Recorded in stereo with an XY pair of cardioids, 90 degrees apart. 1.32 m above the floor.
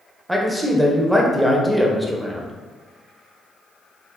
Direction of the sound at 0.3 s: 10° right.